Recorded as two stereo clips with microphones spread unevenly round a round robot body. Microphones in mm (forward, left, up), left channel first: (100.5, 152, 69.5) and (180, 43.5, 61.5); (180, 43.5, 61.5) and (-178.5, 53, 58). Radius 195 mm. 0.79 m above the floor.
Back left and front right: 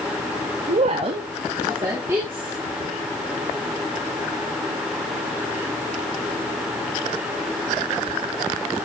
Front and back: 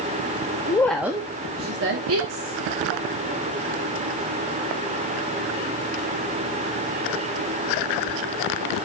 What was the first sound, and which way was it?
A woman speaking, 80° right.